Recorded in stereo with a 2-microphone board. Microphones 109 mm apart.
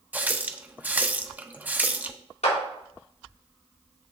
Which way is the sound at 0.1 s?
15° right (ahead or behind).